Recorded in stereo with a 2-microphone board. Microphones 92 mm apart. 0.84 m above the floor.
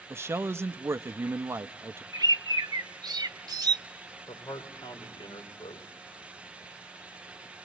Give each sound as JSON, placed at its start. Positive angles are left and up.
{"t": 0.1, "sound": "a man speaking", "side_deg": -30, "distance_m": 0.5}
{"t": 2.1, "sound": "a bird", "side_deg": -45, "distance_m": 0.7}
{"t": 4.3, "sound": "a man speaking", "side_deg": 60, "distance_m": 3.5}